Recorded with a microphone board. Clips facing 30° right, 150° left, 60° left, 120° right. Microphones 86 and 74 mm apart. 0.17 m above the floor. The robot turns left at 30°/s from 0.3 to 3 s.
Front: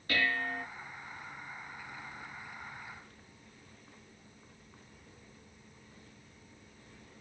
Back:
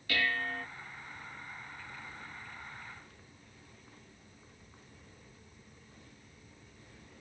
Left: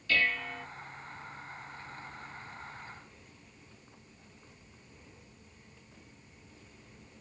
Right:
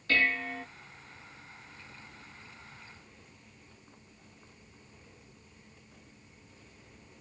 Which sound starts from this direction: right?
Dishes clattering, at 0.1 s.